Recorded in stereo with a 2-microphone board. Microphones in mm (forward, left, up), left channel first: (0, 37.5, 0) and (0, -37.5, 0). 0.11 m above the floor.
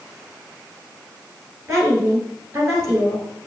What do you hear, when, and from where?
1.7 s a woman speaking: 40° right (ahead or behind), 2 m